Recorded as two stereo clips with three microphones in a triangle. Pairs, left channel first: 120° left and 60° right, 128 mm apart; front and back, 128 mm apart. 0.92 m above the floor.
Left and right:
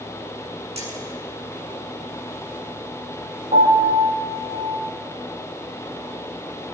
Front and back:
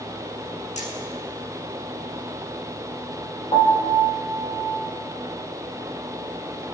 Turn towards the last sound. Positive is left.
turn(degrees=-50)